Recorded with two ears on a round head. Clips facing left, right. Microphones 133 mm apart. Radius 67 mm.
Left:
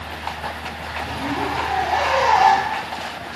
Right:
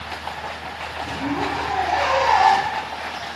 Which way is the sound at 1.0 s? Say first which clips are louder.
Even; 20° right (ahead or behind).